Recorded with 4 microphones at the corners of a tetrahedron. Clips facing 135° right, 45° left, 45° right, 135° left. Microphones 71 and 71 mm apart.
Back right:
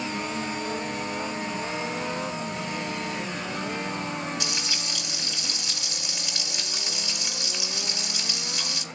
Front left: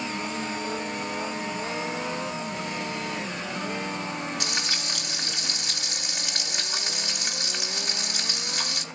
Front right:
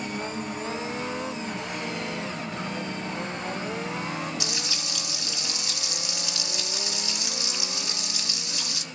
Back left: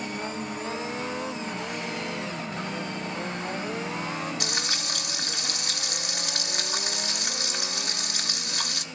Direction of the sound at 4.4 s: 90° left.